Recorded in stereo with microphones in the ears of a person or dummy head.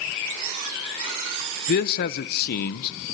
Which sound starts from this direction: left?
A man speaking, at 1.7 s.